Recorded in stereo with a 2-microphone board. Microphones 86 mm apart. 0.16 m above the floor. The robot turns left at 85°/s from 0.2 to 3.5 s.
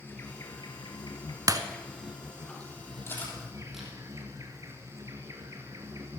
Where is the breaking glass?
45° right (ahead or behind), 0.8 m; by 1.6 s 40° right (ahead or behind), 0.8 m.